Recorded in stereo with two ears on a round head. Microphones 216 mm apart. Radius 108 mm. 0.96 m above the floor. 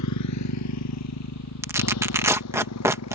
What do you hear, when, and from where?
0.0 s a motorcycle: 85° left; by 3.1 s 70° left (ahead or behind)
1.6 s tearing paper: 10° right (ahead or behind)